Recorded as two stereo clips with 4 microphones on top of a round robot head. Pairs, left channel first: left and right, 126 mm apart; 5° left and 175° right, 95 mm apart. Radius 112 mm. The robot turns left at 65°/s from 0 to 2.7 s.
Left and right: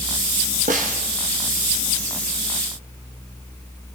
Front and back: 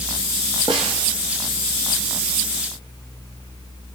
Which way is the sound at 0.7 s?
115° right.